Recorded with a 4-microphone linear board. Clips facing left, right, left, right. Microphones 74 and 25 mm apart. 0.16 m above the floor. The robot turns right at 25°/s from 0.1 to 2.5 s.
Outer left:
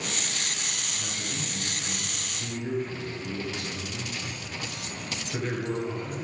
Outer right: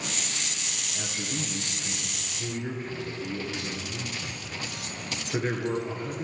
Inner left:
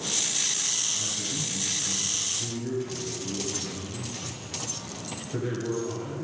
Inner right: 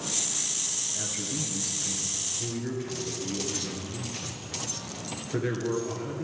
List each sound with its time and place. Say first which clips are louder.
0.9 s a man speaking: outer right 5 dB, inner left 3 dB; 70° right, 2.5 m; by 6.2 s 30° right, 2.5 m